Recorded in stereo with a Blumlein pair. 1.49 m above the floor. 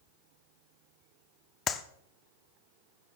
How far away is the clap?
About 0.8 m.